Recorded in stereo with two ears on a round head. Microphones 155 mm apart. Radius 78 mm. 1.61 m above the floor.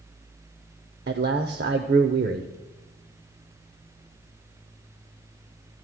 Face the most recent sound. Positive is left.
turn(degrees=-60)  # may be behind; listen again after turning